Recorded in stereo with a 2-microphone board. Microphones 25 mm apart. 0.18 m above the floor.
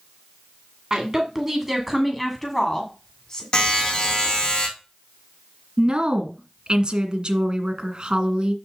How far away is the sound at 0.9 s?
About 1.8 m.